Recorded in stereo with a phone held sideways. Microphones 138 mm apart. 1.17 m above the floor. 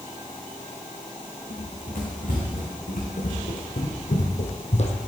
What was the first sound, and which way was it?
Running footsteps, 75° left (ahead or behind).